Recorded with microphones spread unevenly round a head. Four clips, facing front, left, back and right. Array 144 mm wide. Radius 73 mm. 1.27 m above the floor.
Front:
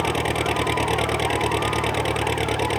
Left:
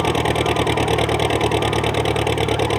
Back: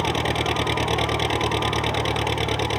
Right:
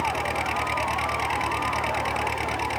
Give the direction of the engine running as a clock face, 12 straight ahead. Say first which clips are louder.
Left 8 dB, front 1 dB; 9 o'clock.